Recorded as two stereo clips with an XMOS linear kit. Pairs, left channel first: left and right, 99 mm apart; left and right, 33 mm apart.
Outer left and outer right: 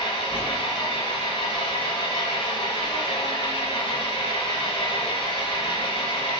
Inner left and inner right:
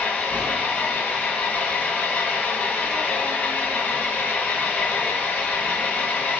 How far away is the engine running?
About 1.5 m.